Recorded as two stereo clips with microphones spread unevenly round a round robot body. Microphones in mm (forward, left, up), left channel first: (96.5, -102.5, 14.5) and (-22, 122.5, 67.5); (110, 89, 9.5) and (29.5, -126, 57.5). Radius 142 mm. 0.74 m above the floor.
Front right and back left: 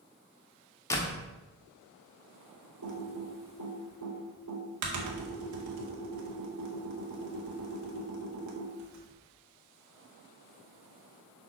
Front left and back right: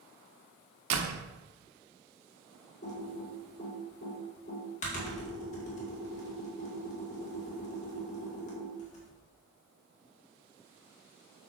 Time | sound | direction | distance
0.9 | a door slam | 140° right | 1.0 m
2.8 | typing on a keyboard | 120° left | 2 m